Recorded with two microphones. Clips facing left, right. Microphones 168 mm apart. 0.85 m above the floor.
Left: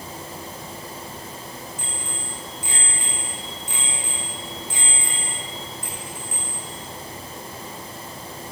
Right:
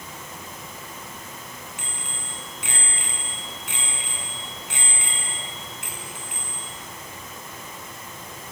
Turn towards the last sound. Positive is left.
turn(degrees=-75)  # may be behind; listen again after turning